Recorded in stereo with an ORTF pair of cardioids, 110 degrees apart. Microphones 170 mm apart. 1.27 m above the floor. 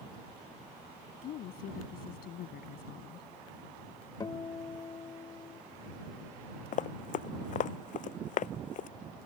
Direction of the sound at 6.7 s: 55° left.